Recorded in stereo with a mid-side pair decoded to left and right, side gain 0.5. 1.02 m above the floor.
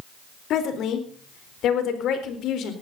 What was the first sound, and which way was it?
A woman speaking, 65° left.